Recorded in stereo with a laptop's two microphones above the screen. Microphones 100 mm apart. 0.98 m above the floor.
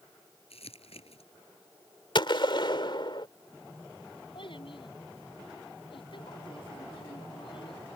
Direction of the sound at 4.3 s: 60° left (ahead or behind).